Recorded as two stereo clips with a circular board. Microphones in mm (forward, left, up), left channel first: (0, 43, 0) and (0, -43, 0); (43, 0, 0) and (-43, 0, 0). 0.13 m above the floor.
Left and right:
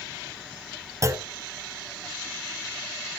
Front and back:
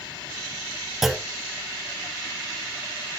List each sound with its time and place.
1.0 s a clunk: 95° right, 1.0 m